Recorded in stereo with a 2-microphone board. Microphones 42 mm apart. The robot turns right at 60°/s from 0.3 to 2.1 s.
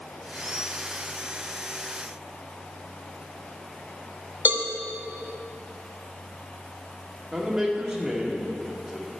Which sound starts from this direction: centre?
A man speaking, at 7.3 s.